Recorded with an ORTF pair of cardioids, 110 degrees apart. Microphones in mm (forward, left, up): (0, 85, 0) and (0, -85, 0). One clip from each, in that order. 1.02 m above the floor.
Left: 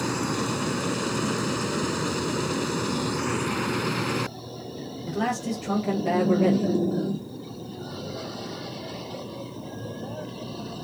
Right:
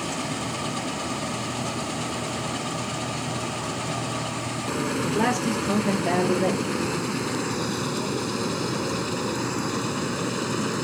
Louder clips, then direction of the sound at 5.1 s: Right 2 dB; 45° right.